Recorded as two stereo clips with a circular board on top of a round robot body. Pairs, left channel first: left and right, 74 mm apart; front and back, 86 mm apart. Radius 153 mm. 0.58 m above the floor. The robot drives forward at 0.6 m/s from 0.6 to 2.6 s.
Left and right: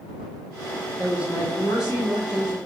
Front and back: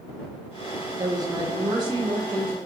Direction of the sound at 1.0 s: 150° right.